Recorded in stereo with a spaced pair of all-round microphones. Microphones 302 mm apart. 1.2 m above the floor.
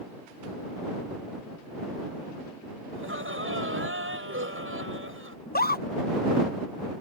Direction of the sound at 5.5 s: 30° left (ahead or behind).